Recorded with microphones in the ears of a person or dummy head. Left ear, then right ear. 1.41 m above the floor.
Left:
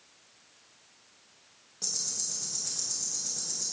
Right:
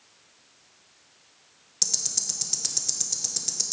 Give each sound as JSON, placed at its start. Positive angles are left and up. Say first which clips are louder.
{"t": 1.8, "sound": "ticking", "louder": "right 6 dB", "side_deg": -70, "distance_m": 0.8}